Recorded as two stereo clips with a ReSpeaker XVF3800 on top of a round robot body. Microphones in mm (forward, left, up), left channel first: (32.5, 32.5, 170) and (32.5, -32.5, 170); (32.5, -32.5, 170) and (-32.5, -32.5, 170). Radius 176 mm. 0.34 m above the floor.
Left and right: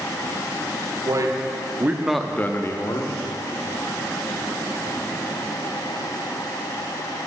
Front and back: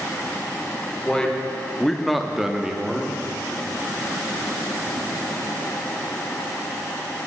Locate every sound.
1.1 s a man speaking: 80° right, 1.4 m; by 3.1 s 105° left, 1.3 m